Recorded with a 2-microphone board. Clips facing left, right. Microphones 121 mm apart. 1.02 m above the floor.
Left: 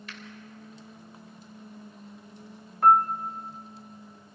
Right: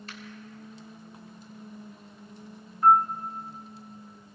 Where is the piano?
70° left (ahead or behind), 0.8 m.